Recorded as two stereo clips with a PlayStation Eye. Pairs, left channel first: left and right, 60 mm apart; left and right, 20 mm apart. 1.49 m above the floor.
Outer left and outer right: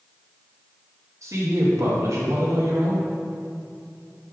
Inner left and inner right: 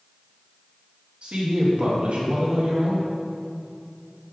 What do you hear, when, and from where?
1.2 s a woman speaking: 55° right (ahead or behind), 2 m